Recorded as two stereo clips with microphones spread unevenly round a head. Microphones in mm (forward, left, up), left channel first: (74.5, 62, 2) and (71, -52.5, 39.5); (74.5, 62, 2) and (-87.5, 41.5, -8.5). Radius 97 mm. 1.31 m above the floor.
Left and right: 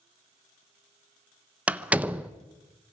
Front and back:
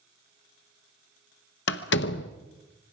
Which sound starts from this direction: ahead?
A door slam, at 1.7 s.